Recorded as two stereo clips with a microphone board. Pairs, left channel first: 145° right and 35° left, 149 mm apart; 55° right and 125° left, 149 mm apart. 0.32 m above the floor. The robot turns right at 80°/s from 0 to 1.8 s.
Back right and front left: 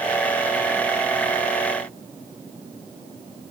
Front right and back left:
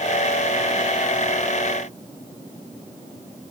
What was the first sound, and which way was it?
Only background noise.